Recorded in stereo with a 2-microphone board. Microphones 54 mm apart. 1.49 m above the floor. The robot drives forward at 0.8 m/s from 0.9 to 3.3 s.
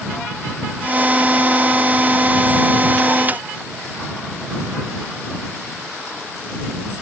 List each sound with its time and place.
Only background noise.